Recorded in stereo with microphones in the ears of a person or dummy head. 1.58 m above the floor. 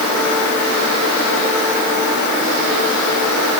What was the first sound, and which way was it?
Only background noise.